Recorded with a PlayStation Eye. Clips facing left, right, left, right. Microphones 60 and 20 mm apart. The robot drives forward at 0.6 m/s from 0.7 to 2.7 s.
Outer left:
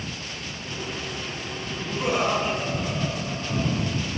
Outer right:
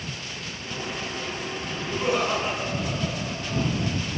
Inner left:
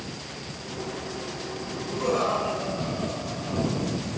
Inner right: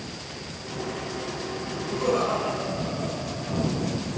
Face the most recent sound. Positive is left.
turn(degrees=10)  # may be behind; listen again after turning